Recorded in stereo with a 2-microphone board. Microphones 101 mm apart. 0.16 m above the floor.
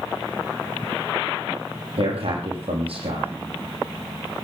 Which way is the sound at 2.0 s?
75° right (ahead or behind).